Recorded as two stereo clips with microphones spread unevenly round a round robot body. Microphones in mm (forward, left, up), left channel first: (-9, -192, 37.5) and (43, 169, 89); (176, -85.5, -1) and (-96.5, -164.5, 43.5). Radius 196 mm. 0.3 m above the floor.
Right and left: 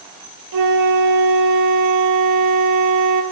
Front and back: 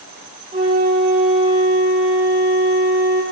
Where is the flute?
125° left, 1.5 m.